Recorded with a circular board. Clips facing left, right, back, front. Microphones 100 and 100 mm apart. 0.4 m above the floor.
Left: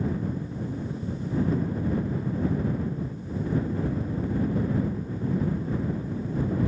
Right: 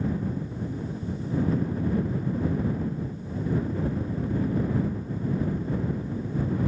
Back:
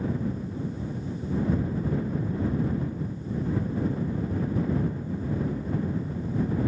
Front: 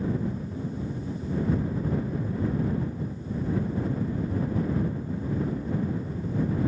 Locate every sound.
Only background noise.